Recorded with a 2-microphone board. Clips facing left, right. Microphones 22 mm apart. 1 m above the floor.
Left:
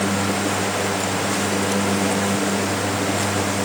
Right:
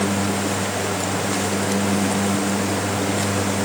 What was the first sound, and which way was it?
Only background noise.